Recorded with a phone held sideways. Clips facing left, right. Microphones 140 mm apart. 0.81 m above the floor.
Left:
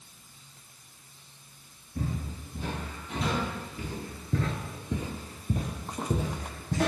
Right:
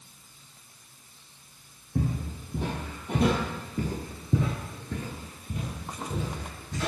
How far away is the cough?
I don't hear a cough.